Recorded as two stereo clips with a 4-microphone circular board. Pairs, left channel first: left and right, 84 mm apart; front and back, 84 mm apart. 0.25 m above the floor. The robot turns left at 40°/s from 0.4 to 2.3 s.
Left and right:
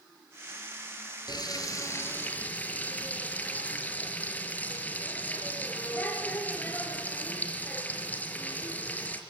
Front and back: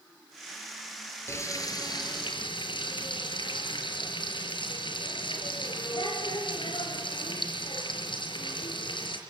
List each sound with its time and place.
1.3 s frying: 60° left, 5 m; by 9.2 s 20° left, 5 m